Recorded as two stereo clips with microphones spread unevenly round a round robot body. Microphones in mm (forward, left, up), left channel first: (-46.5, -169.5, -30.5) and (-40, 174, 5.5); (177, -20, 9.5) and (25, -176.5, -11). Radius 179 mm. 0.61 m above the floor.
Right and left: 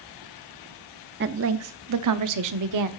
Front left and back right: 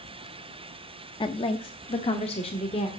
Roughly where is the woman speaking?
Left.